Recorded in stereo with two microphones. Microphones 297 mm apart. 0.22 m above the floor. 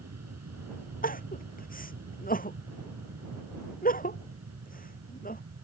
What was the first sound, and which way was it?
An aircraft, 60° right (ahead or behind).